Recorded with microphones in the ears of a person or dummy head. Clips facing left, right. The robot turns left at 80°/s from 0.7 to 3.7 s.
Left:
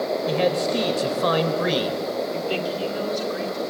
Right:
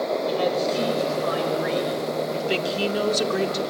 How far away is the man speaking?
About 4.5 m.